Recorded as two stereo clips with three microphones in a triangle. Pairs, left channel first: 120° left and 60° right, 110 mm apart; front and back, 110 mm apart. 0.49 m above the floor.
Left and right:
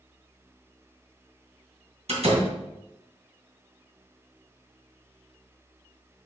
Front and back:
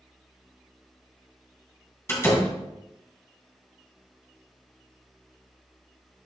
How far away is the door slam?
About 2.5 m.